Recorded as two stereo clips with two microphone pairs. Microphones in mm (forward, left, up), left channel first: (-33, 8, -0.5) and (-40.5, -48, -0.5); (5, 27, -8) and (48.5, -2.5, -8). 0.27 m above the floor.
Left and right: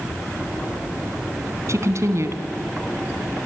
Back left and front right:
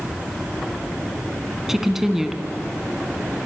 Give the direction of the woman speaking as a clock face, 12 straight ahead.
4 o'clock.